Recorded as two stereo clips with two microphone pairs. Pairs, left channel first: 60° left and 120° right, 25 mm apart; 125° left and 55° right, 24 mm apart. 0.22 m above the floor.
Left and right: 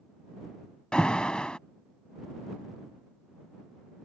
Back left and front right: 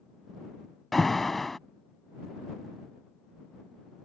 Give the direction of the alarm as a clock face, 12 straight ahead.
10 o'clock.